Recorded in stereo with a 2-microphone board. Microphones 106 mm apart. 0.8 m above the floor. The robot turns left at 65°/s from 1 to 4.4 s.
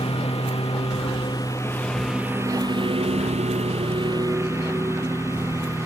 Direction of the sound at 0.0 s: 65° left.